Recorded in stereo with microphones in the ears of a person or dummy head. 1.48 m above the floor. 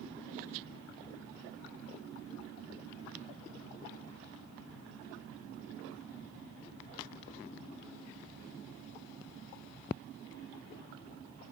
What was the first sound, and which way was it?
Only background noise.